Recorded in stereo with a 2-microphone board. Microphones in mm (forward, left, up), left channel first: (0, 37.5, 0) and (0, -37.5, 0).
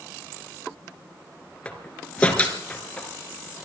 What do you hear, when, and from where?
1.6 s a door slam: 20° left (ahead or behind), 3.5 m